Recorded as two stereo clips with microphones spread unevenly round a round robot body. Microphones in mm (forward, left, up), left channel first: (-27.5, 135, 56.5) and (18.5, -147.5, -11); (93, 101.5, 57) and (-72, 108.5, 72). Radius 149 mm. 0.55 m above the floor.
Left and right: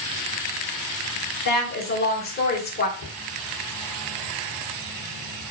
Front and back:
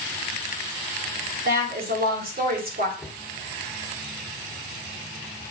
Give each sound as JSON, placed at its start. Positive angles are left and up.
{"t": 1.4, "sound": "a woman speaking", "azimuth_deg": 160, "distance_m": 2.5}
{"t": 3.0, "sound": "a cupboard door", "azimuth_deg": 80, "distance_m": 1.9}